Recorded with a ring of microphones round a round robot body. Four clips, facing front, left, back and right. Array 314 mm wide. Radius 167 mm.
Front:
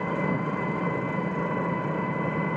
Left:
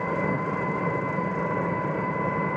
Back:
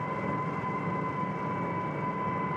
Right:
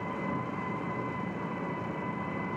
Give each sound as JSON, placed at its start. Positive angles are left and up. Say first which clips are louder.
{"t": 0.0, "sound": "an engine running", "louder": "left 8 dB, front 4 dB", "azimuth_deg": 60, "distance_m": 1.4}